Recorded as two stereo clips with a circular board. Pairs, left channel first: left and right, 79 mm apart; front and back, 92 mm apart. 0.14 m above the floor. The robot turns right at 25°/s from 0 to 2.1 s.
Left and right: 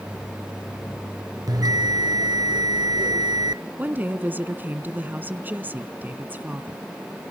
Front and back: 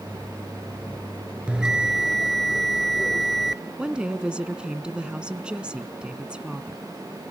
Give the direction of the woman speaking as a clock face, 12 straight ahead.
4 o'clock.